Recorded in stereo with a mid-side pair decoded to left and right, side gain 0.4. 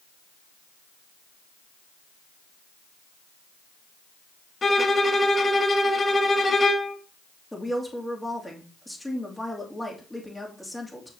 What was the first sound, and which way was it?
A violin, 35° left.